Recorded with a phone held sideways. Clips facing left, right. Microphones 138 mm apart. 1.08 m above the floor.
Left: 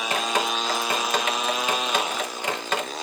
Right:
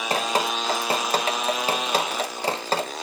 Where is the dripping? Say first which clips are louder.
Right 2 dB; 35° right (ahead or behind), 0.7 m.